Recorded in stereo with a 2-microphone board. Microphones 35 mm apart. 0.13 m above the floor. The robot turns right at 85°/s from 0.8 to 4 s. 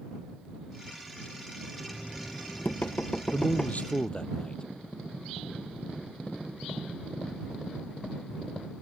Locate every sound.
1.8 s knocking: 5° left; by 3.9 s straight behind
3.3 s a man speaking: 90° left; by 4.6 s 150° left